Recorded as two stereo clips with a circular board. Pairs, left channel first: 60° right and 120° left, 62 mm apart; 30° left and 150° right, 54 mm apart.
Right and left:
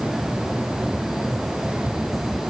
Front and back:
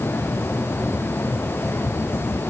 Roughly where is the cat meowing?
No cat meowing in this recording.